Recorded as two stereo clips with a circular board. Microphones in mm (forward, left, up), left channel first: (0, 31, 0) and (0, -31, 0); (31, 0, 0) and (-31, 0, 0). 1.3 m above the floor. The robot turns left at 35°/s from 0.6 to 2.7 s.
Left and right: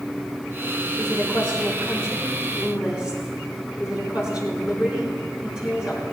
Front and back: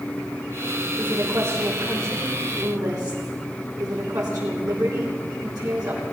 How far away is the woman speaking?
About 9.5 m.